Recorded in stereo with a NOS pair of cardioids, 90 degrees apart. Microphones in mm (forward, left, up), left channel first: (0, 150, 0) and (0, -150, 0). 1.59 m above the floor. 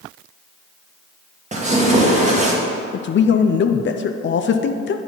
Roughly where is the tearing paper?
Ahead right.